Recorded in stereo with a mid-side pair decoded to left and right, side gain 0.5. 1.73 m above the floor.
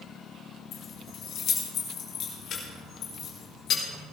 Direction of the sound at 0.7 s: 65° left.